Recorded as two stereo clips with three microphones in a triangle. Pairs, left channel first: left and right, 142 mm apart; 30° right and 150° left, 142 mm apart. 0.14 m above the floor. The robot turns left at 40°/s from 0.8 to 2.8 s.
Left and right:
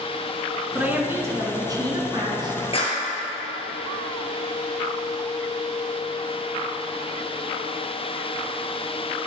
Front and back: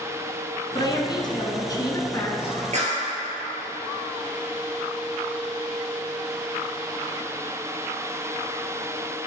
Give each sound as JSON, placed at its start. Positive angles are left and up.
{"t": 0.8, "sound": "a woman speaking", "azimuth_deg": -20, "distance_m": 1.2}
{"t": 2.7, "sound": "a clap", "azimuth_deg": 130, "distance_m": 2.0}